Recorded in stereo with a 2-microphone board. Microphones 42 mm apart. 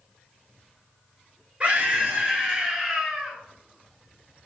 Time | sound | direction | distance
1.6 | a scream | 35° right (ahead or behind) | 1.8 m